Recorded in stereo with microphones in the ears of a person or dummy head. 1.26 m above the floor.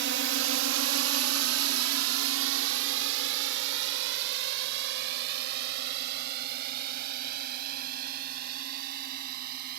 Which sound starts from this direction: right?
A drone, at 0.0 s.